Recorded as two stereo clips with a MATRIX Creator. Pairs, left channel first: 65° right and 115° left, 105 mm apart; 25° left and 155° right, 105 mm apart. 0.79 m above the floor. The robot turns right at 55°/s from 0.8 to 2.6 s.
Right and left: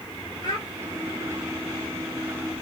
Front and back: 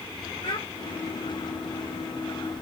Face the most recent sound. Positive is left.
turn(degrees=80)